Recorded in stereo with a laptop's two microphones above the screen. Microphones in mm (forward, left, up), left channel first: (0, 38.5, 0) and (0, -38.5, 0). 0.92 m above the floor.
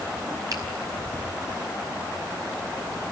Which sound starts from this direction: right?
A finger snap, at 0.5 s.